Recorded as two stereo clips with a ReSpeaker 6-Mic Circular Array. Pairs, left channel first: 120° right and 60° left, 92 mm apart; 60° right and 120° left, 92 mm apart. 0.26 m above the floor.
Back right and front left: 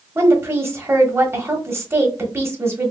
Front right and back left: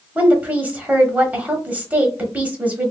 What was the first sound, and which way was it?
A woman speaking, 70° left.